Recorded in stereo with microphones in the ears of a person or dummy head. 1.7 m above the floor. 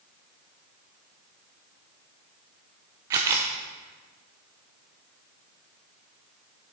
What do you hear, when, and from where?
3.1 s a camera shutter: 25° right (ahead or behind), 0.8 m